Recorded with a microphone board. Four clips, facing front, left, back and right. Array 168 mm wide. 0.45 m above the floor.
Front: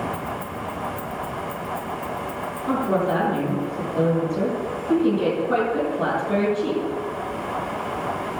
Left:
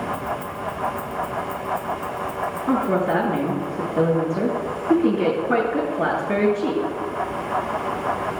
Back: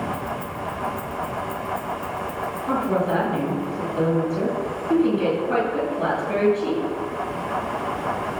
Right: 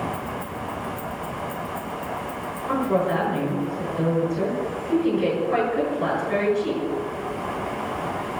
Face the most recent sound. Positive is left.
turn(degrees=75)